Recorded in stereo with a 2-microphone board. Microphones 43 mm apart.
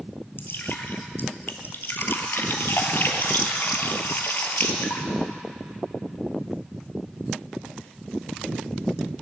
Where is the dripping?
60° left (ahead or behind), 1.1 m.